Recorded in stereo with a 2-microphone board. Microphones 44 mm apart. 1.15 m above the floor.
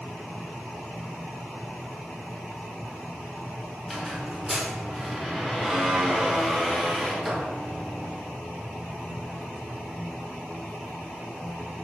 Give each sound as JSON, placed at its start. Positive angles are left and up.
{"t": 3.8, "sound": "a squeak", "side_deg": -5, "distance_m": 0.6}